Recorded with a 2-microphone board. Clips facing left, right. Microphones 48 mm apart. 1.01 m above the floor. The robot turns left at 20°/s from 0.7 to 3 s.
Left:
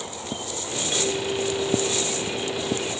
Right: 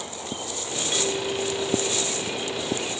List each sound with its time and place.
0.9 s a clink: straight behind, 3 m; by 2.9 s 140° left, 3 m